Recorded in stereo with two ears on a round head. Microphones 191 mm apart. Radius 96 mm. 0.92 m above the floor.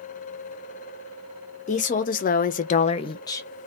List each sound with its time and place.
1.7 s a woman speaking: 35° left (ahead or behind), 0.9 m; by 3.5 s 15° left (ahead or behind), 0.8 m